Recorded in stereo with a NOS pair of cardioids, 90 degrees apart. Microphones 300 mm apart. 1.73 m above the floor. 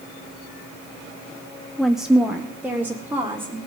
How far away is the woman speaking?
About 0.6 m.